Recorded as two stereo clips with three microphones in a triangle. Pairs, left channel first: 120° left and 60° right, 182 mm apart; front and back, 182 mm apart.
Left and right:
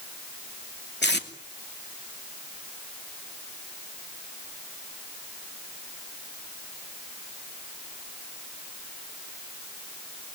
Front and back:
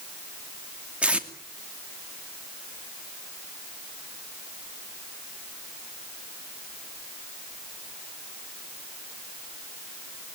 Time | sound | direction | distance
1.0 | tape being pulled | 95° left | 2.5 m